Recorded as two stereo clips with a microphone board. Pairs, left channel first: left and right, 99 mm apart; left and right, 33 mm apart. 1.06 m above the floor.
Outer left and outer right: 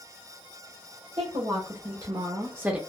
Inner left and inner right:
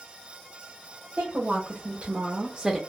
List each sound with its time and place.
1.2 s a woman speaking: 60° right (ahead or behind), 1.2 m; by 2.8 s 10° right (ahead or behind), 0.6 m